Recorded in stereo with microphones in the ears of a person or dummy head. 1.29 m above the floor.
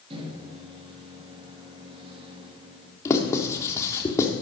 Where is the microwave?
25° right (ahead or behind), 2 m.